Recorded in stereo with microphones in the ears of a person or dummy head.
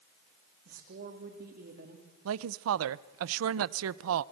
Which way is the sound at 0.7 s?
50° right (ahead or behind).